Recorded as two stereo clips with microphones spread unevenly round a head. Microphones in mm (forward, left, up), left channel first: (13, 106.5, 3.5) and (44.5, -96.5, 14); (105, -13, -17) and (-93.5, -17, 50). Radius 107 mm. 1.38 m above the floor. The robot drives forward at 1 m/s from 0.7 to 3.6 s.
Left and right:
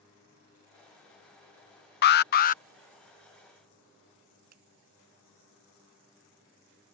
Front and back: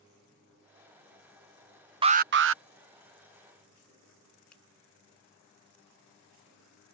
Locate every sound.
2.0 s an alarm: 105° left; by 2.6 s 150° left
4.5 s a finger snap: 85° right